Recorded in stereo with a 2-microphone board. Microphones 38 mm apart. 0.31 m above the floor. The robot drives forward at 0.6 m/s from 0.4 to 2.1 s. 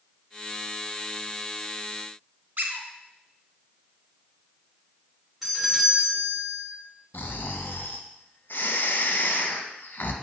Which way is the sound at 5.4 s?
5° right (ahead or behind).